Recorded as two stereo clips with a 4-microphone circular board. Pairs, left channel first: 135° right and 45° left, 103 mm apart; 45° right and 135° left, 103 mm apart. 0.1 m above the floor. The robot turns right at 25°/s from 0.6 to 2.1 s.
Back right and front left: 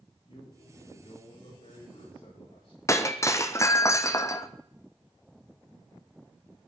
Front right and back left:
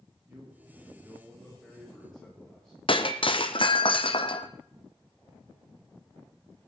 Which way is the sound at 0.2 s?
165° right.